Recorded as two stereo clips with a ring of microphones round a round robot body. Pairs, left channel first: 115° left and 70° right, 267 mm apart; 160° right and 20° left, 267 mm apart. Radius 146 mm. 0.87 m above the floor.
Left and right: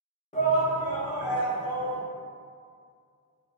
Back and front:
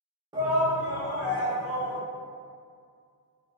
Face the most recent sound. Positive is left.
turn(degrees=175)